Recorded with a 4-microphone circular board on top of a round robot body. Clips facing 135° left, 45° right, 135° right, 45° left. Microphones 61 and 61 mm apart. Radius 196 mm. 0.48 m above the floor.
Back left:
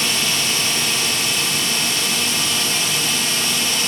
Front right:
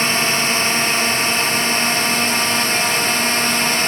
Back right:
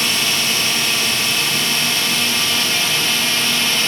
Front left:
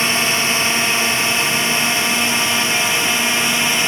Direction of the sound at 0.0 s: 5° right.